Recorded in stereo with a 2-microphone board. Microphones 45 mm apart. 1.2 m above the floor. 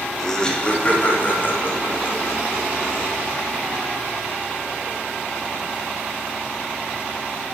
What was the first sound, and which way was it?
Laughter, 10° left (ahead or behind).